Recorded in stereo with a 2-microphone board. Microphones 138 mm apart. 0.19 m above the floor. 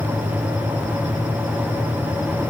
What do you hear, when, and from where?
Only background noise.